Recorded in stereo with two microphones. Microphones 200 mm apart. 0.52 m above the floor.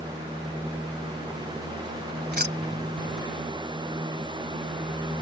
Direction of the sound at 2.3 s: 55° right (ahead or behind).